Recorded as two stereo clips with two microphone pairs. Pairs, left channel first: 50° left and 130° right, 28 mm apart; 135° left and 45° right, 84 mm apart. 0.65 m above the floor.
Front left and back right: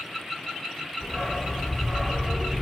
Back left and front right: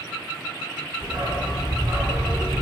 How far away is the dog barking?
About 1.6 m.